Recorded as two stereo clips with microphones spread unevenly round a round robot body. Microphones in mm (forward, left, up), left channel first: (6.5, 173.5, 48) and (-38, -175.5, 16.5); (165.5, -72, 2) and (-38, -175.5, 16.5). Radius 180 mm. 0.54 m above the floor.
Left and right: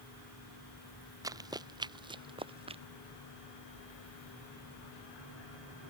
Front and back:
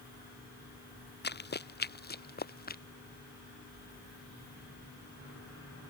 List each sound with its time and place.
1.2 s running footsteps: 15° right; by 2.8 s 20° right